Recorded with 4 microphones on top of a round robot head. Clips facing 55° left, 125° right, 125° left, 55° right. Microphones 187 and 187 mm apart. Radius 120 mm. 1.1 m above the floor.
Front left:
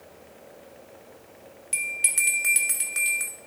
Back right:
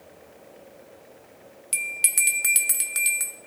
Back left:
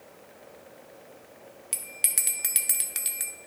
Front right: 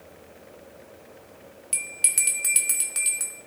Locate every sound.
1.7 s a bell: 155° right, 0.8 m